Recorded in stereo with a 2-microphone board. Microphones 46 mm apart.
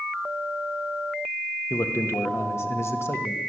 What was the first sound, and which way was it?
A man speaking, 70° left (ahead or behind).